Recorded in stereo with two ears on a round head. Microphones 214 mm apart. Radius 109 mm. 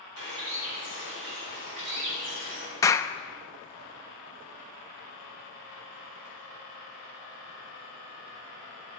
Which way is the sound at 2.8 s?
15° left (ahead or behind).